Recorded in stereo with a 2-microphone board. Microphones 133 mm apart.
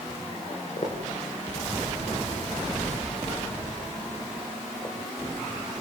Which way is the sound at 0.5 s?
55° left (ahead or behind).